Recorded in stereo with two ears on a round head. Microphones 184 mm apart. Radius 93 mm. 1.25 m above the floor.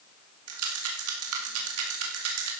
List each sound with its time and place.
0.5 s a rattle: 75° right (ahead or behind), 2 m